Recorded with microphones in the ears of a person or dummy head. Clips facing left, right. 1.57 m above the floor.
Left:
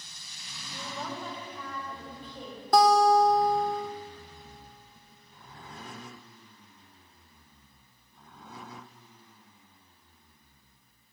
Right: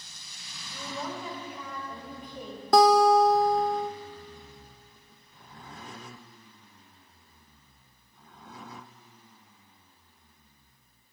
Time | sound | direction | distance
0.7 | a woman speaking | centre (ahead or behind) | 2.5 m
2.7 | a guitar | 65° right (ahead or behind) | 0.7 m